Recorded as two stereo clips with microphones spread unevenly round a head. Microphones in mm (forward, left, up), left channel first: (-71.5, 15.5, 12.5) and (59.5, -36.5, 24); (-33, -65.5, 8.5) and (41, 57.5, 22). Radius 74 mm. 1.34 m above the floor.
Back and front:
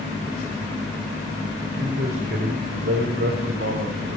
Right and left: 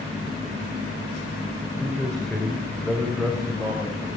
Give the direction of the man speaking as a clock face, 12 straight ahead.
1 o'clock.